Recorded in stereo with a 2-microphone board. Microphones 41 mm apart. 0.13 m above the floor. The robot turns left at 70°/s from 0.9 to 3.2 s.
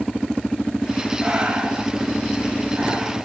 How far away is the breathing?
About 1.3 m.